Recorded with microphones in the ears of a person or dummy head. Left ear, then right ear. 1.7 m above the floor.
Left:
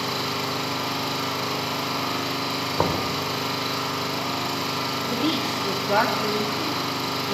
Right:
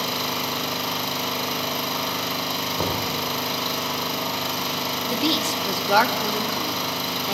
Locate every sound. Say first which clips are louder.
0.0 s an engine running: right 1 dB; 20° right (ahead or behind), 7 m
2.8 s knocking: left 1 dB; 20° left (ahead or behind), 5 m
5.1 s a woman speaking: right 4 dB; 35° right (ahead or behind), 3 m